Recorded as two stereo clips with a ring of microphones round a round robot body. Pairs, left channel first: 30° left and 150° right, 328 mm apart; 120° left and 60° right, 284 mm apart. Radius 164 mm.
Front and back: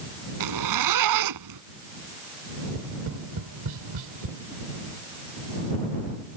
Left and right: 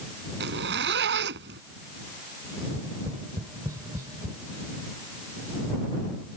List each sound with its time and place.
0.4 s a zipper: 120° right
2.6 s tapping: 140° right